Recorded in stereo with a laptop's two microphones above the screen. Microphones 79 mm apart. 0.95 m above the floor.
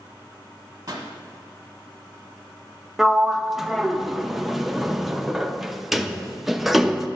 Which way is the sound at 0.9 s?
45° right (ahead or behind).